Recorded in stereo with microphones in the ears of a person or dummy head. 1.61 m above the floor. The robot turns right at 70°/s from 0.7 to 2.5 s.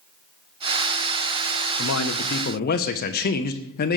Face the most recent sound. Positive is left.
turn(degrees=130)